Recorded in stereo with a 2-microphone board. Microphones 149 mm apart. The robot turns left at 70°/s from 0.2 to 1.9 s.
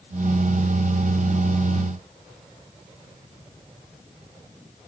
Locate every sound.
Only background noise.